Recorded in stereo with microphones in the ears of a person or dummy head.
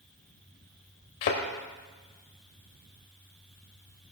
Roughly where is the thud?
Left.